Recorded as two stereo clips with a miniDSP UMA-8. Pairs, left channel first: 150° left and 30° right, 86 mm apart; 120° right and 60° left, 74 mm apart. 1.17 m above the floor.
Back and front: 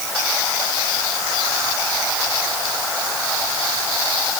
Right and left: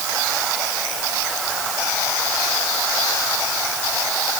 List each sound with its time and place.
Only background noise.